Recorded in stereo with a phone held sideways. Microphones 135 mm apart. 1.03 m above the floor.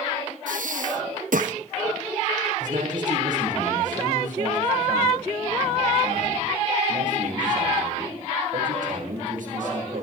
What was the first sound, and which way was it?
Breathing, 80° right.